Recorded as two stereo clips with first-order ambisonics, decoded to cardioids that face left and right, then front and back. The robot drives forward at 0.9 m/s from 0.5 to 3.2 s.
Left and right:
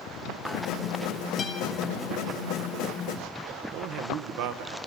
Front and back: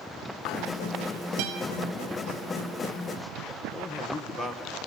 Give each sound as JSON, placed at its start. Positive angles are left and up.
{"t": 1.4, "sound": "a guitar", "azimuth_deg": 155, "distance_m": 1.5}
{"t": 3.7, "sound": "a man speaking", "azimuth_deg": -90, "distance_m": 1.2}